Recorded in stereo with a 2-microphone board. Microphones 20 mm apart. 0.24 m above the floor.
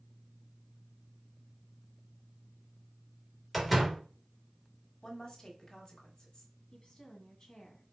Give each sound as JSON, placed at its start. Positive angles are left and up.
{"t": 3.5, "sound": "a door slam", "side_deg": 0, "distance_m": 2.0}
{"t": 5.0, "sound": "a woman speaking", "side_deg": 45, "distance_m": 1.4}
{"t": 6.7, "sound": "a woman speaking", "side_deg": 50, "distance_m": 1.7}